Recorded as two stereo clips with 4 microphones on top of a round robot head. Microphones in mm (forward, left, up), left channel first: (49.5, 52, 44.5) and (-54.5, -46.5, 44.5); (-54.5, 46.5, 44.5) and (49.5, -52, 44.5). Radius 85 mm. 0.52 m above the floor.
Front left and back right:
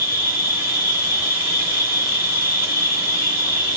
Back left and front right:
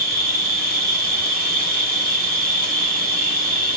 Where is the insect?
60° right, 2.0 m.